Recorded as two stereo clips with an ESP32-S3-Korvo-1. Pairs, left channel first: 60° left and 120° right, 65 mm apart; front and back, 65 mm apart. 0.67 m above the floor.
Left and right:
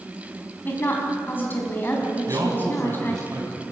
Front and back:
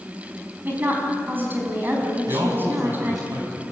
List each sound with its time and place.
0.7 s a woman speaking: 120° left, 4.5 m
2.3 s a man speaking: 155° right, 4.5 m